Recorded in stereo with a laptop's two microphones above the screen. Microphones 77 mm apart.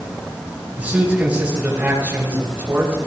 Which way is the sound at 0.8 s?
15° right (ahead or behind).